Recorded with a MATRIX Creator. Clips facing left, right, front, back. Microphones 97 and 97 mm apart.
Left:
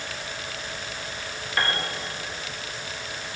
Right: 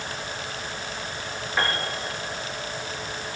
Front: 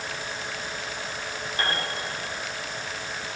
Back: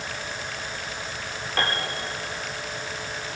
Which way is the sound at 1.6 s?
175° right.